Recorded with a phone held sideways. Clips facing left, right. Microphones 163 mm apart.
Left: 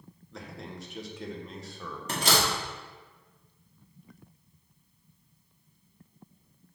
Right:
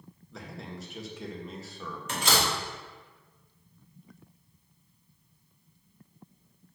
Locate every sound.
0.3 s a man speaking: centre (ahead or behind), 1.1 m
2.1 s a door slam: 35° left (ahead or behind), 2 m